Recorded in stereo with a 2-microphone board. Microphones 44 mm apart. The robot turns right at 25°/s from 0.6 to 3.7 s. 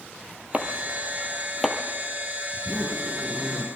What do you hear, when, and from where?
0.5 s chopping: 35° right (ahead or behind), 2.5 m; by 1.8 s 5° right (ahead or behind), 2.5 m
2.5 s a zipper: 60° right (ahead or behind), 9 m; by 3.6 s 35° right (ahead or behind), 9 m